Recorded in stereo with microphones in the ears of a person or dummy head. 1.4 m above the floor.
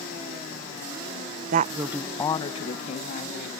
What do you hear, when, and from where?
1.5 s a woman speaking: 50° right (ahead or behind); by 3.5 s 50° left (ahead or behind)